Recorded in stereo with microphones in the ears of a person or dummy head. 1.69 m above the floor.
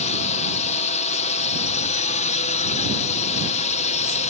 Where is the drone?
35° left (ahead or behind).